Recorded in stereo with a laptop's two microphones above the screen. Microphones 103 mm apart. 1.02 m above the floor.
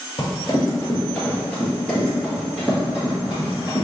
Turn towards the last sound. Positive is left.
turn(degrees=-15)  # may be behind; listen again after turning